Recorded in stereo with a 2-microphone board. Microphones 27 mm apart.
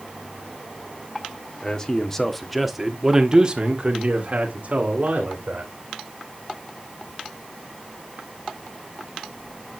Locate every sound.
1.6 s a man speaking: 30° left (ahead or behind), 1.7 m; by 5.7 s 65° right (ahead or behind), 3 m